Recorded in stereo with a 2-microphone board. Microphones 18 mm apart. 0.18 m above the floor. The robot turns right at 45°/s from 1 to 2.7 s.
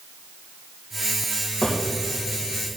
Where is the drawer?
40° left (ahead or behind), 3.5 m; by 1.8 s 50° left (ahead or behind), 3.5 m.